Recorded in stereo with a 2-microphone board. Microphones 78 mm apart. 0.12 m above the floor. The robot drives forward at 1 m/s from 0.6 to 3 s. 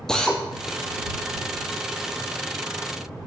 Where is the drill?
10° left (ahead or behind), 2.5 m.